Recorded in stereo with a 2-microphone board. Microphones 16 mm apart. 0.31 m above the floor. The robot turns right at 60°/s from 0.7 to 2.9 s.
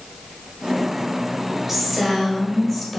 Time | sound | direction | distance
1.7 | a woman speaking | 15° right (ahead or behind) | 1.2 m